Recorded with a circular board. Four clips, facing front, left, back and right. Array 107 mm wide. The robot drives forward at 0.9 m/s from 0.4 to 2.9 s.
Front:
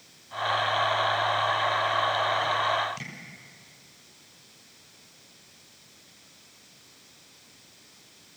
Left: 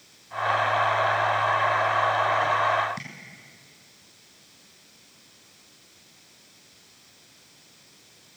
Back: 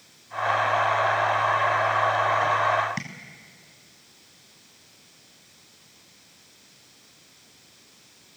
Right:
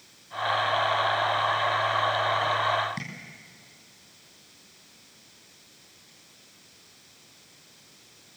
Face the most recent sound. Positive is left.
turn(degrees=-175)